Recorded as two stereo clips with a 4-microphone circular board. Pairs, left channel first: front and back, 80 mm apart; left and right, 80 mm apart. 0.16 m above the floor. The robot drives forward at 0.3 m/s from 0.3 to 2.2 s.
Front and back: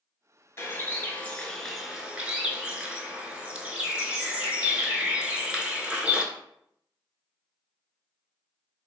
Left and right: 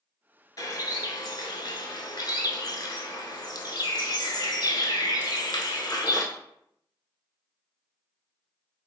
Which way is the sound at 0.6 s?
50° left.